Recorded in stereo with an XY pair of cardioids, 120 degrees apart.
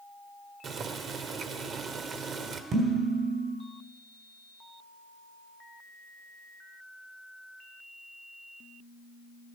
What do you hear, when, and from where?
0.6 s boiling: 50° right, 1.1 m
2.7 s dishes clattering: 65° right, 3.5 m